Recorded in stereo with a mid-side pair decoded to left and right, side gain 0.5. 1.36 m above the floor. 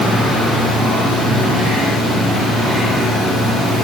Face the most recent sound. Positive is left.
No sound to turn to.